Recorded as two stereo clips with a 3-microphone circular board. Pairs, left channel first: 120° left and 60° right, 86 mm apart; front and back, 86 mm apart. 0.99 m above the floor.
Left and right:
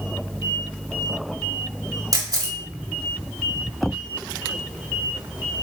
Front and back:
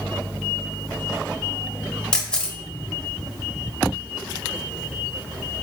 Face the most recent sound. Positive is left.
turn(degrees=-75)